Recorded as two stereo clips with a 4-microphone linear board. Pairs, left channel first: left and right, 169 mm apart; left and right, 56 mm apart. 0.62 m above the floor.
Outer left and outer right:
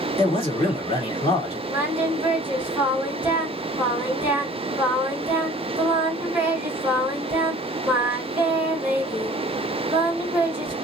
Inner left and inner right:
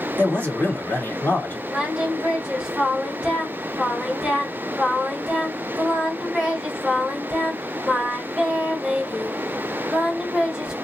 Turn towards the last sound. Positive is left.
turn(degrees=-10)  # may be behind; listen again after turning